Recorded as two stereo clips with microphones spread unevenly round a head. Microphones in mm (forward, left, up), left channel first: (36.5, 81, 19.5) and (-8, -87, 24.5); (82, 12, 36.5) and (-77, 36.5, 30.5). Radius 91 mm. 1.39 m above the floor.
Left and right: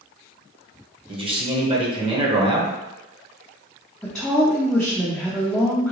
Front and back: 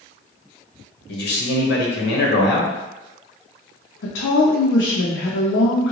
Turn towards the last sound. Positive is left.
turn(degrees=-10)